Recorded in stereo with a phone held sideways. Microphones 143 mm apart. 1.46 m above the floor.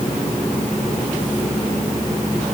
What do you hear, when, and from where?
Only background noise.